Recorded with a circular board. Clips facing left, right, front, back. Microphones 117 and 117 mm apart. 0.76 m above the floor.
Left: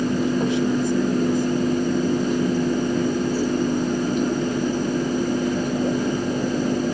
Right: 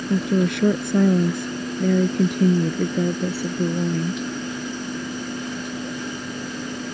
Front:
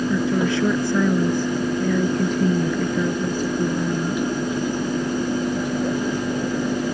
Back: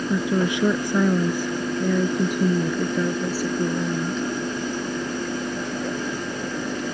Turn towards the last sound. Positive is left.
turn(degrees=-95)